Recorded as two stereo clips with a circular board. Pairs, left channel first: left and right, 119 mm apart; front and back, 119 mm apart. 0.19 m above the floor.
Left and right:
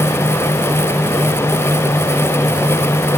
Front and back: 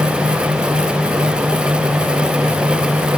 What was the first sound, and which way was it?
Only background noise.